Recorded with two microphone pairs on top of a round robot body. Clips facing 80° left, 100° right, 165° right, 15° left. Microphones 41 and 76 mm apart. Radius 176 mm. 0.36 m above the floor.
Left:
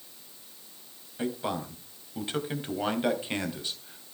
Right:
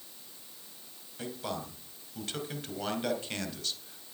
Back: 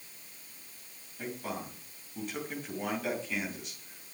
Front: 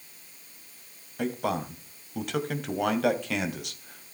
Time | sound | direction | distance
1.2 | a man speaking | 10° left | 3 m